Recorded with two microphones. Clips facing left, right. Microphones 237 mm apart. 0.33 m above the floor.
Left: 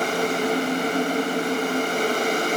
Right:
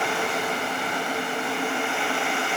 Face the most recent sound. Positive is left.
No sound to turn to.